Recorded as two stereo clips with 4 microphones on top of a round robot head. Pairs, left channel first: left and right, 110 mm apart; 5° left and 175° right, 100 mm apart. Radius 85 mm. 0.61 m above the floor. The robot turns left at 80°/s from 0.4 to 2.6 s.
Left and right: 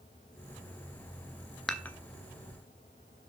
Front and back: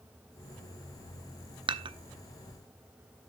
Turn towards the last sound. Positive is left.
turn(degrees=100)